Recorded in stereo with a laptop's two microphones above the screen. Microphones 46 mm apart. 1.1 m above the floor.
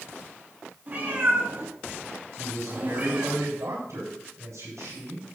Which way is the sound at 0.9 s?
35° right (ahead or behind).